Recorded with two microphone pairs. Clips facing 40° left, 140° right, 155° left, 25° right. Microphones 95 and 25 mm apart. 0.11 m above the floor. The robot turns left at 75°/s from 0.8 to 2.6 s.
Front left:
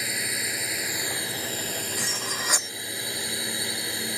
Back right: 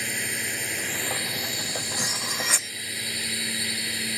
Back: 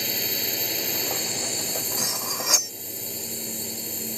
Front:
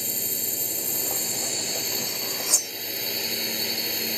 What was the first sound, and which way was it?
A drone, 120° left.